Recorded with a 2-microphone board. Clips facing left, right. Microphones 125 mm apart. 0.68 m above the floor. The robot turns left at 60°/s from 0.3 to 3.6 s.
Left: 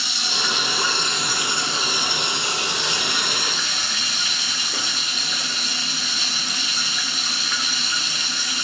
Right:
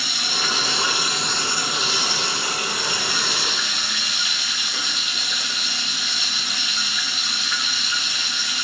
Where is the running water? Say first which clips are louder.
Even; 125° right, 2.5 m; by 8.7 s 35° left, 2.5 m.